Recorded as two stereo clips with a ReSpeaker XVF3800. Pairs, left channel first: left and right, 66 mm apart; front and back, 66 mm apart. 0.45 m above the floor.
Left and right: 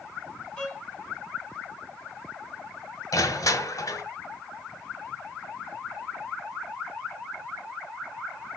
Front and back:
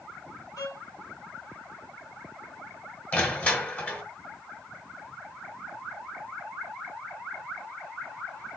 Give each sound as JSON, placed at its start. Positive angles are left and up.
{"t": 0.6, "sound": "a violin", "azimuth_deg": 20, "distance_m": 2.5}
{"t": 3.1, "sound": "crushing", "azimuth_deg": 65, "distance_m": 1.7}